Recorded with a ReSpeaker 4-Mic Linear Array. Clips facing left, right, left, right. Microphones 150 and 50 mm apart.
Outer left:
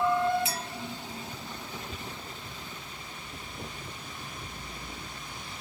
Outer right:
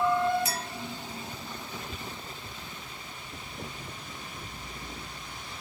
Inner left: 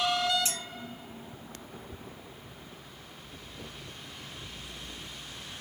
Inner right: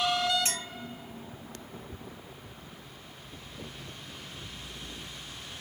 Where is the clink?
45° right (ahead or behind), 1.8 m.